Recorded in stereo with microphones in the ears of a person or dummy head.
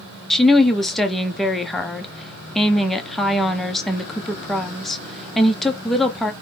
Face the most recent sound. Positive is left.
turn(degrees=0)  # may be behind; listen again after turning